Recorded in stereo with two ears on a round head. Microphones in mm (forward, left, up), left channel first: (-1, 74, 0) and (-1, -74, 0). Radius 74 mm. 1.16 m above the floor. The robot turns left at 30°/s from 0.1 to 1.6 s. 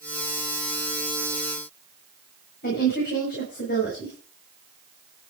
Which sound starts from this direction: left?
A woman speaking, at 2.6 s.